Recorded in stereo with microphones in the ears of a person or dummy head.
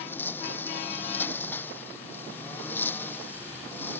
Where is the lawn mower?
10° left (ahead or behind).